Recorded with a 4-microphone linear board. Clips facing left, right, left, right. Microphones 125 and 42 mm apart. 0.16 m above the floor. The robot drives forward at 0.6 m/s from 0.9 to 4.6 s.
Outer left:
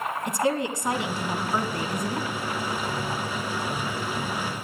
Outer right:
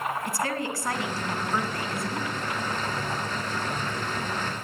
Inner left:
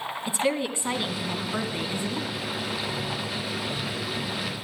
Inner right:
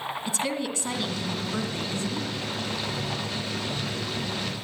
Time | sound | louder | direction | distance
0.3 | a woman speaking | outer left 4 dB, inner left 5 dB | 20° left (ahead or behind) | 1.4 m